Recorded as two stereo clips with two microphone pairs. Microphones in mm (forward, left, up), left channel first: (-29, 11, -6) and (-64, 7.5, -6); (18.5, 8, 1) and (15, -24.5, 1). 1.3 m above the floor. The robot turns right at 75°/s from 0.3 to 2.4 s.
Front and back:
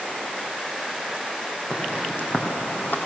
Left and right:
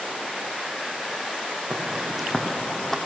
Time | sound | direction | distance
1.7 | footsteps | 55° right | 3.5 m